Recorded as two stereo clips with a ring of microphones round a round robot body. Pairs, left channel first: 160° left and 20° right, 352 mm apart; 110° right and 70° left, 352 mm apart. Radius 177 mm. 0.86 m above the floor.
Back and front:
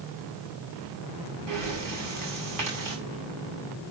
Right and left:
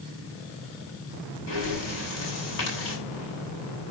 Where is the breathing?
60° right, 8.5 m.